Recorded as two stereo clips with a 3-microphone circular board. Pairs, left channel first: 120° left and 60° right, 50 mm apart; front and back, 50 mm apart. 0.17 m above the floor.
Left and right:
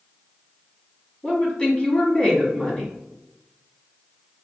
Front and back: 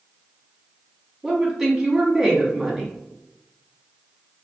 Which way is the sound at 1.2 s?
105° left.